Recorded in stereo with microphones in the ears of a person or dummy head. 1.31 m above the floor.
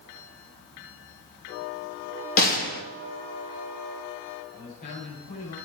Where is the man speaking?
45° left (ahead or behind), 8.5 m.